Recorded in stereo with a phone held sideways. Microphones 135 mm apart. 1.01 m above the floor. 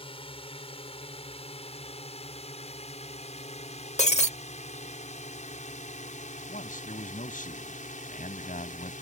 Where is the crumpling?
I don't hear crumpling.